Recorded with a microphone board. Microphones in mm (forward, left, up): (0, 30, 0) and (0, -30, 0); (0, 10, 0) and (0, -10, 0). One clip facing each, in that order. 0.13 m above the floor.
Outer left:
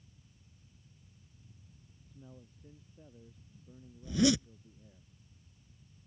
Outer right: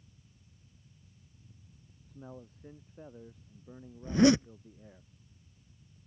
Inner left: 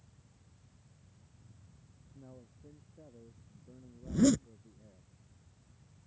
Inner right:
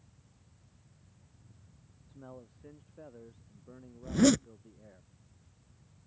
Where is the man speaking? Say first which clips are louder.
Outer right 7 dB, inner right 5 dB; 55° right (ahead or behind).